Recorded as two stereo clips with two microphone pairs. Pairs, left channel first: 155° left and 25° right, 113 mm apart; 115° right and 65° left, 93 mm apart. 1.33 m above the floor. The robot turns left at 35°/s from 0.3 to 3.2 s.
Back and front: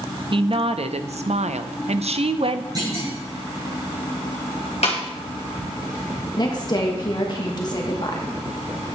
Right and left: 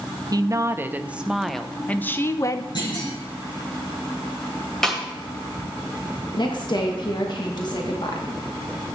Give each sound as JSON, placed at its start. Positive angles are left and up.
{"t": 0.3, "sound": "a woman speaking", "azimuth_deg": 15, "distance_m": 0.6}
{"t": 2.8, "sound": "a clunk", "azimuth_deg": -80, "distance_m": 6.5}
{"t": 4.8, "sound": "a snare drum", "azimuth_deg": 155, "distance_m": 2.0}
{"t": 6.4, "sound": "a woman speaking", "azimuth_deg": -160, "distance_m": 1.3}